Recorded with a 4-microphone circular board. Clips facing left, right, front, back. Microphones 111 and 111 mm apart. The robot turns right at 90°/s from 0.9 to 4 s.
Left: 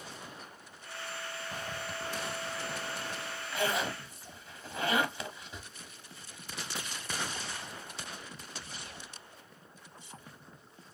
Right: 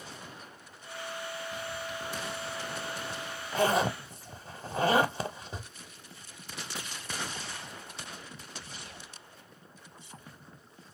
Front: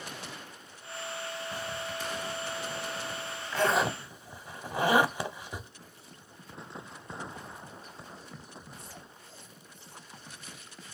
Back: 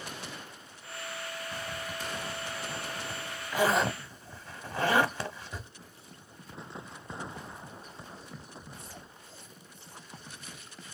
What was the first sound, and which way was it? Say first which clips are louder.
A zipper: right 2 dB, front 2 dB; 70° left.